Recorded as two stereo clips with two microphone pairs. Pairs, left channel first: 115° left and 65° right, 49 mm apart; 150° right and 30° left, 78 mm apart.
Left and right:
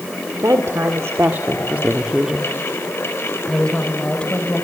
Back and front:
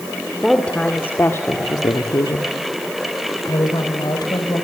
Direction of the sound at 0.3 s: 65° right.